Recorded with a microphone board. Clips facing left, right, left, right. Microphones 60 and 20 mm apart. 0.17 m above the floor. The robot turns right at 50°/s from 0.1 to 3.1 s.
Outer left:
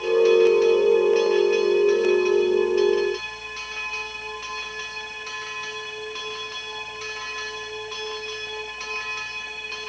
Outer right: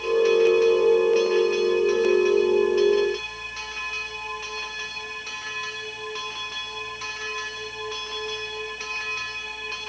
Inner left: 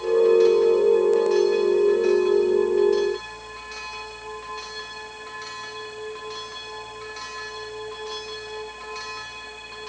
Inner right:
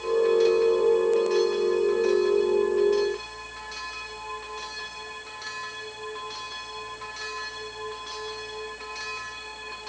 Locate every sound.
Only background noise.